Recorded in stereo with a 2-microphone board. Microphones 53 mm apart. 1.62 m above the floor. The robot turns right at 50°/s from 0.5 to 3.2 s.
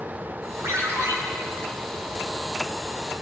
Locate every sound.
0.6 s a ringtone: 70° right (ahead or behind), 2.5 m; by 1.1 s 60° right (ahead or behind), 2.5 m